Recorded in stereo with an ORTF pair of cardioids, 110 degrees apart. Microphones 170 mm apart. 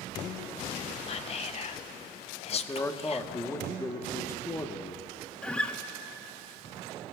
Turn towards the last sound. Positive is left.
turn(degrees=5)